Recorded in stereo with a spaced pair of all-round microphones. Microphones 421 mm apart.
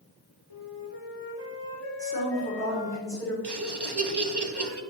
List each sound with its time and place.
0.5 s a flute: 85° left, 1.5 m
2.0 s a woman speaking: 10° left (ahead or behind), 4.5 m
3.4 s laughter: 65° right (ahead or behind), 1.0 m